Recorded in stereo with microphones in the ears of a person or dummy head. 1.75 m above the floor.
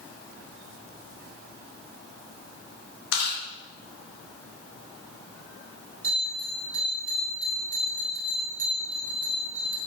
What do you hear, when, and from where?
3.1 s chewing: 80° left, 3 m
6.0 s a bell: 50° right (ahead or behind), 3 m